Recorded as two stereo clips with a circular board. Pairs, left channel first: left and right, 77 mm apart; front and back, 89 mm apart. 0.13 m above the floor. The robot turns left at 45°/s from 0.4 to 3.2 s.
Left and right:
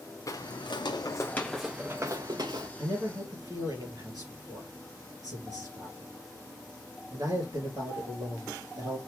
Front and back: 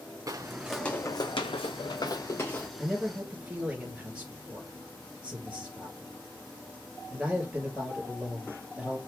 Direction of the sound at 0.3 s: 130° left.